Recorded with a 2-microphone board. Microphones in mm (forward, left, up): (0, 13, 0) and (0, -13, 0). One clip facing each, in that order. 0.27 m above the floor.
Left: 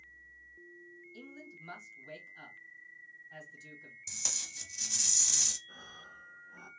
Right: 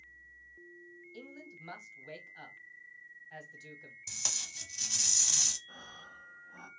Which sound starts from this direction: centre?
Tape being pulled, at 4.1 s.